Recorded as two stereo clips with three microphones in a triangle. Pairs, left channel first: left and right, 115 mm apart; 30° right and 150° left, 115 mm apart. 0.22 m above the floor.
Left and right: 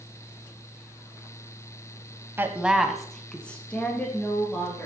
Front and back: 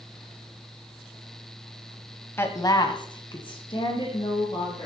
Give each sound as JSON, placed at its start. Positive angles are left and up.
{"t": 2.4, "sound": "a woman speaking", "azimuth_deg": -60, "distance_m": 1.0}